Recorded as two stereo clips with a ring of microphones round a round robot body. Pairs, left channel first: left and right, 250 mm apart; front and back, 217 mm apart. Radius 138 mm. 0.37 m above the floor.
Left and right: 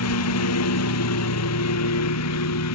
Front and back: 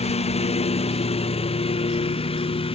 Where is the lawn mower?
60° left; by 2.8 s 65° left.